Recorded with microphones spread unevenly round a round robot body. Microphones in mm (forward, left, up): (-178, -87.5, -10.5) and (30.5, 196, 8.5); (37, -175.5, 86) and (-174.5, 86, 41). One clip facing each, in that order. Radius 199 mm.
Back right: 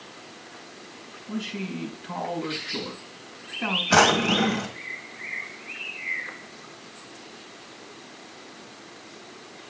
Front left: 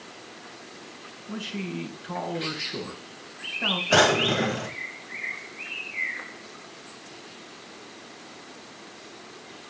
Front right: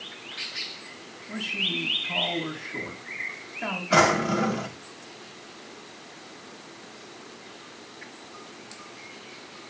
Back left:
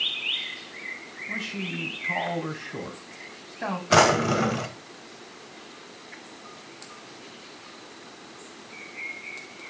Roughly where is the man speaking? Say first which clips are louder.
Back right 2 dB, even; behind left.